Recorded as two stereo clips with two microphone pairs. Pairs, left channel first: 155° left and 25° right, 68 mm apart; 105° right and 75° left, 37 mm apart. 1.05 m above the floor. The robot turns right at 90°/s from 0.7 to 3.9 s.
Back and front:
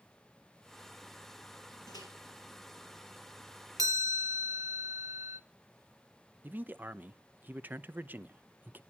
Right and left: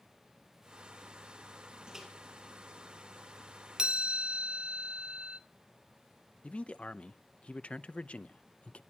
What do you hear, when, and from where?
1.9 s a microwave: 145° left, 5 m; by 2.1 s 165° left, 5 m
3.8 s a chime: 5° left, 1.1 m; by 5.4 s 15° left, 1.1 m
6.4 s a man speaking: 65° right, 0.6 m